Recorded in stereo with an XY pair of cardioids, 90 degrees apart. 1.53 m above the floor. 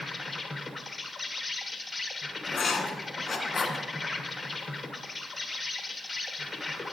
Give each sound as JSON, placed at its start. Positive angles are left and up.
{"t": 0.0, "sound": "an insect", "azimuth_deg": 25, "distance_m": 1.1}
{"t": 2.5, "sound": "writing", "azimuth_deg": 45, "distance_m": 1.4}